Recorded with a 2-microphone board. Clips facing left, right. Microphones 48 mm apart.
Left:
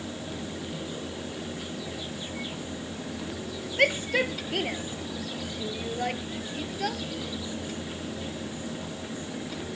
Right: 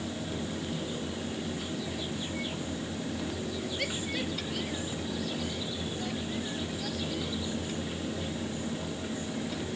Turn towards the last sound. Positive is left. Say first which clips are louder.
# left 14 dB
turn(degrees=55)  # may be behind; listen again after turning